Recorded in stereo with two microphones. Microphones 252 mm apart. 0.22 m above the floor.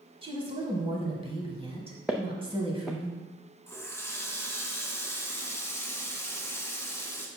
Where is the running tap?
10° left (ahead or behind), 1.1 m.